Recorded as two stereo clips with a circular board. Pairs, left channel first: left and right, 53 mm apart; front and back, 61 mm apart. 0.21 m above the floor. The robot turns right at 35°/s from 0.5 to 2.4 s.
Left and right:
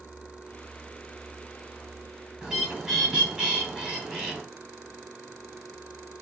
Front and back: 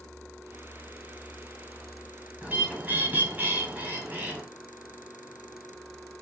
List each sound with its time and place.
2.4 s a bird: 155° right, 1.3 m